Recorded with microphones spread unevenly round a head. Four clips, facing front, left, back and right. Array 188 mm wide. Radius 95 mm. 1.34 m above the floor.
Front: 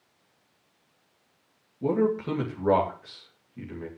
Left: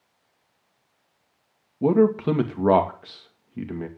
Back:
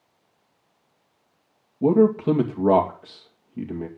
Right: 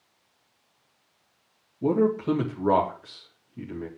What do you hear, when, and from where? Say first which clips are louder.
1.8 s a man speaking: left 4 dB, back 7 dB; 135° left, 2.5 m